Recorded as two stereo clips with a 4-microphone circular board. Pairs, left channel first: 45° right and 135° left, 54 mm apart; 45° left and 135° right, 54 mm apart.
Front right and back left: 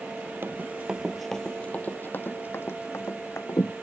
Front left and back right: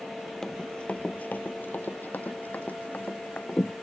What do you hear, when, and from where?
0.4 s running footsteps: 120° left; by 3.7 s 15° right